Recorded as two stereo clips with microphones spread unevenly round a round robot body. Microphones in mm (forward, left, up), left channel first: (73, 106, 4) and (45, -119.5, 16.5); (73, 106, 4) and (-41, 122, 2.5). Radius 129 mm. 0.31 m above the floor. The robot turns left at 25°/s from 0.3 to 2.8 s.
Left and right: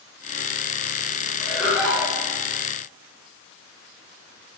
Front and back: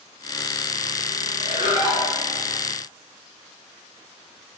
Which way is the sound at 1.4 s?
150° left.